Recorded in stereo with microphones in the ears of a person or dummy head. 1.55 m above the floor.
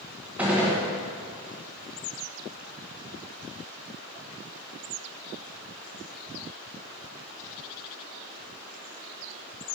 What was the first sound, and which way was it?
A gunshot, 5° right (ahead or behind).